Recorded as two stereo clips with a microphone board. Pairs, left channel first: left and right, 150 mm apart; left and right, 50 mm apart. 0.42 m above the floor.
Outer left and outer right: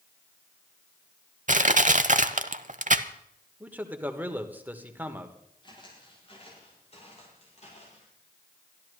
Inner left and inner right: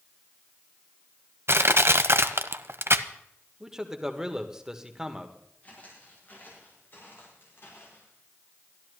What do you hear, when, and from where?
1.5 s crushing: 60° right (ahead or behind), 0.7 m
3.6 s a man speaking: 10° right (ahead or behind), 1.4 m
5.6 s footsteps: 30° left (ahead or behind), 7.5 m; by 8.1 s 55° left (ahead or behind), 9 m